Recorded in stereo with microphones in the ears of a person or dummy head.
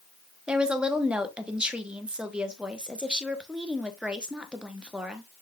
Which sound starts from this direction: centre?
A woman speaking, at 0.5 s.